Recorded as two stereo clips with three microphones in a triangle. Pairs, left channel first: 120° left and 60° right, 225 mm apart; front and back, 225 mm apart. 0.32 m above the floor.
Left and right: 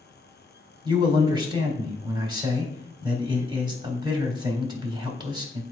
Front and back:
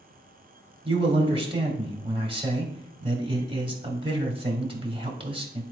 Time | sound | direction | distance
0.8 | a man speaking | 120° right | 1.9 m